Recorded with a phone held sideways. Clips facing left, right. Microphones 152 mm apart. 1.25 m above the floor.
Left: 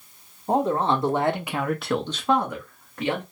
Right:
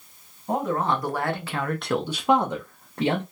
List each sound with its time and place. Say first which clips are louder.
0.5 s a man speaking: left 3 dB; 30° left (ahead or behind), 1.0 m; by 3.2 s 35° right (ahead or behind), 0.9 m